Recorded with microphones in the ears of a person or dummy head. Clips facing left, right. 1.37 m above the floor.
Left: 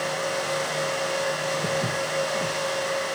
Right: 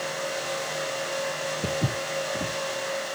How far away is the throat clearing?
I don't hear throat clearing.